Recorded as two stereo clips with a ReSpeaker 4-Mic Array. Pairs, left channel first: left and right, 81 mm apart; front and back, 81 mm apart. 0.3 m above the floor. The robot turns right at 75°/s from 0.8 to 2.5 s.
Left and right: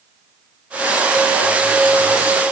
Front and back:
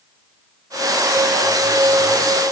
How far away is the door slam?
I don't hear a door slam.